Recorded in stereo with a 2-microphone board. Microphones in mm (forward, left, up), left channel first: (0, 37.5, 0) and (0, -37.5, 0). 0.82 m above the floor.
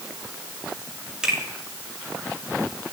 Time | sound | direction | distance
1.2 | a finger snap | 10° right (ahead or behind) | 1.9 m